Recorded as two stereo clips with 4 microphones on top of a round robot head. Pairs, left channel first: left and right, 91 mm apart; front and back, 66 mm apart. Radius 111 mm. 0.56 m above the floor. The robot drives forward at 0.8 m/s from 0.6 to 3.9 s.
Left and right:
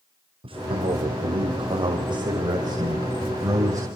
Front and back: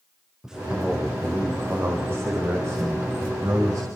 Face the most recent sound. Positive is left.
turn(degrees=-145)